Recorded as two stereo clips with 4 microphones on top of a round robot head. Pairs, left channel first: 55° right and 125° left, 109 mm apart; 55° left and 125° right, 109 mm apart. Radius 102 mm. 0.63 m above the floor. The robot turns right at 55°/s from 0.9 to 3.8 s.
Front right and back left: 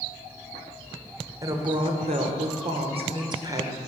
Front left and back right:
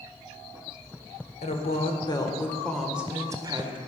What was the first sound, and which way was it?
A woman speaking, 65° left.